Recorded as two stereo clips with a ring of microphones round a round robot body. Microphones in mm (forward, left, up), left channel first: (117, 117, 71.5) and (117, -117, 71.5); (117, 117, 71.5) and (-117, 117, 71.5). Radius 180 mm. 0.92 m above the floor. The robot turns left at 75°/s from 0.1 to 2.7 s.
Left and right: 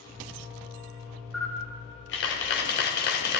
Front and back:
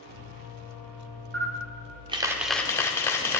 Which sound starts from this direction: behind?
A camera shutter, at 1.3 s.